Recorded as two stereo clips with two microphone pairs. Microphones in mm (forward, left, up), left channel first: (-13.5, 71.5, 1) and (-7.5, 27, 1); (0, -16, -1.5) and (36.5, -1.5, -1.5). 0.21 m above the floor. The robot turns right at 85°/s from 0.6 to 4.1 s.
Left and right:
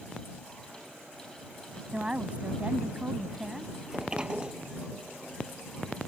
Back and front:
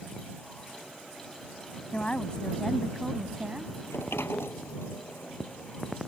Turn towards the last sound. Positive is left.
turn(degrees=-155)